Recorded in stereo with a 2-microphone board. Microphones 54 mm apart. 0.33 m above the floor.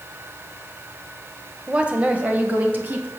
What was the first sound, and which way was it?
A woman speaking, 20° right (ahead or behind).